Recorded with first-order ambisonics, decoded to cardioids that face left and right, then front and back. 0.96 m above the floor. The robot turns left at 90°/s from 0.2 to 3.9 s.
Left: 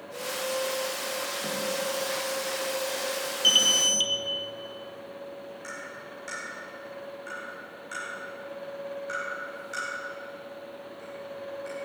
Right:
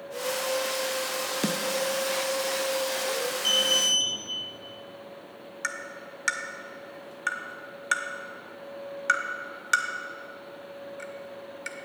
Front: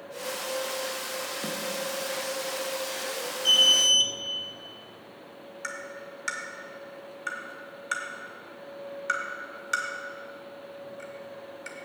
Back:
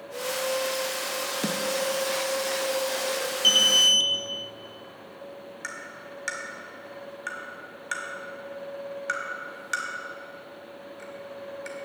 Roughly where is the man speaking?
I don't hear a man speaking.